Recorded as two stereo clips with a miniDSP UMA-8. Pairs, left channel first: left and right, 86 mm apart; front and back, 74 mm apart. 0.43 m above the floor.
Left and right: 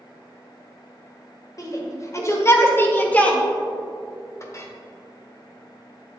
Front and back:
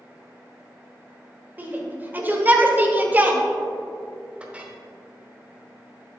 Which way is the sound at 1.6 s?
120° left.